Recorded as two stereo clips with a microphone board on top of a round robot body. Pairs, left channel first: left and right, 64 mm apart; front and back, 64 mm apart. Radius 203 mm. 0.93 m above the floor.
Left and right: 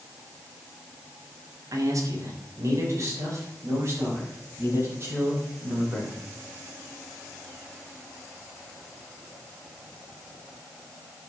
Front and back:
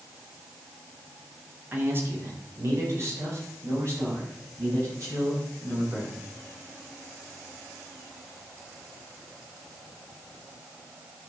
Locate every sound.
1.7 s a man speaking: 120° right, 2.5 m; by 6.2 s 145° right, 9 m